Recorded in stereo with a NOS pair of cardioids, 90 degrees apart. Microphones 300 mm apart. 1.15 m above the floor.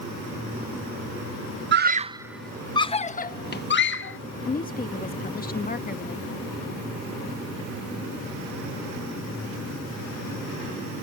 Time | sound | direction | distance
1.7 | a scream | 35° right | ?
4.5 | a woman speaking | 25° left | ?